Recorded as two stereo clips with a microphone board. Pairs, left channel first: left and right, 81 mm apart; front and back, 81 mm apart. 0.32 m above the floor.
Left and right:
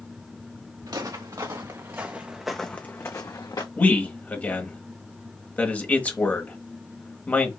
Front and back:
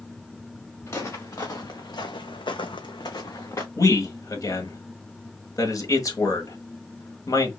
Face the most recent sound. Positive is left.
turn(degrees=25)